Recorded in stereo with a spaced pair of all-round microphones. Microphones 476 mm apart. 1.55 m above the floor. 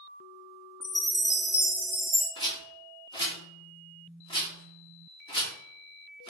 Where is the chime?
10° right (ahead or behind), 1.1 m.